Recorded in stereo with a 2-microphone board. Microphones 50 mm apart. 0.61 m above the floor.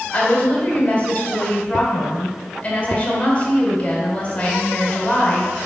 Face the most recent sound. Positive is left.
turn(degrees=30)  # may be behind; listen again after turning